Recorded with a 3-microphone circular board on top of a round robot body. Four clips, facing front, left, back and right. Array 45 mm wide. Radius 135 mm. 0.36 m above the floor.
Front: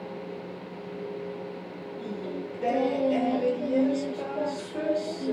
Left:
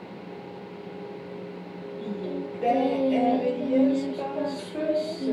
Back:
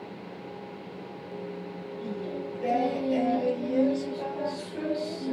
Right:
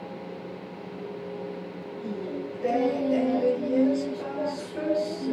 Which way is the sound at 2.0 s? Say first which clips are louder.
Left 1 dB, even; 60° left.